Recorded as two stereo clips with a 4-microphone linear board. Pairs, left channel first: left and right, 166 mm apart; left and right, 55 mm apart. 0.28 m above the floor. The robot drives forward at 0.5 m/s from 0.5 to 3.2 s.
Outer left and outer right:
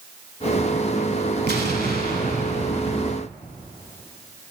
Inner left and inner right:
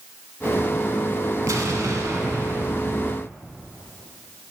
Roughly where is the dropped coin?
I don't hear a dropped coin.